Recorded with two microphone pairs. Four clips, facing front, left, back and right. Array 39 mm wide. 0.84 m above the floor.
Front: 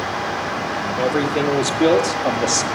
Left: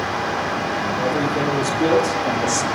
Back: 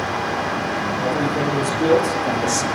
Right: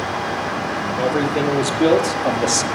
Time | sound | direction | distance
1.0 | a man speaking | 30° right | 3 m